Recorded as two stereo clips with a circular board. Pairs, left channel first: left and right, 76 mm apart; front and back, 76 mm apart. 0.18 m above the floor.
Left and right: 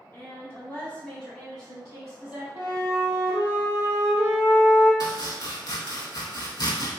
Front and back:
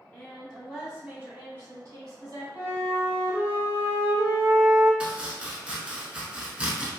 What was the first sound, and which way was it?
A woman speaking, 55° left.